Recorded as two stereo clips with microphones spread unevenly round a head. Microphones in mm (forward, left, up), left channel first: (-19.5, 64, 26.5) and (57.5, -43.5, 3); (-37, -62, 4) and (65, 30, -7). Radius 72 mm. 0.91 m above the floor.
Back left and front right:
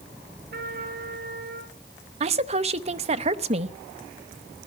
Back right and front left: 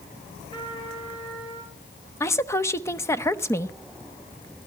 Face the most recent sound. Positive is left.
turn(degrees=-65)